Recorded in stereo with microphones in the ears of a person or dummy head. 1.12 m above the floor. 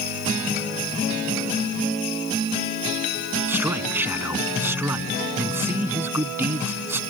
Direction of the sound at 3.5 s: 15° right (ahead or behind).